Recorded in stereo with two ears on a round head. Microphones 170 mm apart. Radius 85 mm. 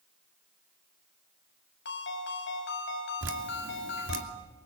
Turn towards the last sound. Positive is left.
turn(degrees=-70)  # may be behind; listen again after turning